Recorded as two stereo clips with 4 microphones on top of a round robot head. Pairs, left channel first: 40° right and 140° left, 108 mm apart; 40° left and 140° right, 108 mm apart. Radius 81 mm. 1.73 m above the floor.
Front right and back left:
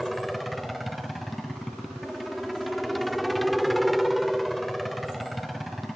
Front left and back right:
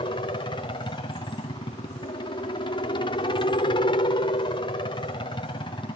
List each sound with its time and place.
0.0 s a helicopter: 50° left